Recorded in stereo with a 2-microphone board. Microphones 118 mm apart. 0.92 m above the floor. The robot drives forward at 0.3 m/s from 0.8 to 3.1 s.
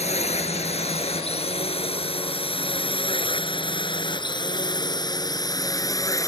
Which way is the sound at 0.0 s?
65° left (ahead or behind).